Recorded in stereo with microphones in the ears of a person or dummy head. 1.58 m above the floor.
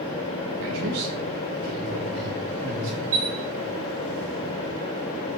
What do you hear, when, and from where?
0.6 s a man speaking: 70° right (ahead or behind), 2 m; by 3.0 s 30° right (ahead or behind), 4 m
3.1 s a chime: 15° right (ahead or behind), 1.3 m